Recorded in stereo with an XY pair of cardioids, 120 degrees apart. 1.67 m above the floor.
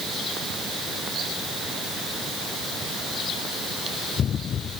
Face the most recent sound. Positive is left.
No sound to turn to.